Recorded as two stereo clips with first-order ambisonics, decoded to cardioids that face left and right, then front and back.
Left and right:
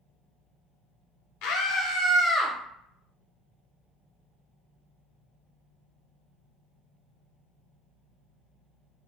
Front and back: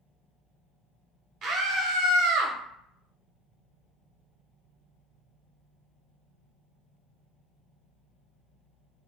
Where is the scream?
120° left, 0.7 m; by 2.5 s straight behind, 0.6 m.